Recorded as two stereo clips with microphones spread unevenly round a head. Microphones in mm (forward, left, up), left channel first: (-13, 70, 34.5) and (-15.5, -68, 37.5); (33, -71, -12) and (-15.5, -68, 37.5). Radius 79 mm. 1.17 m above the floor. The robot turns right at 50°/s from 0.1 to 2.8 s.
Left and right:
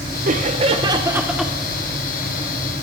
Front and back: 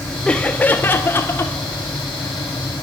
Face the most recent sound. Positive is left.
turn(degrees=65)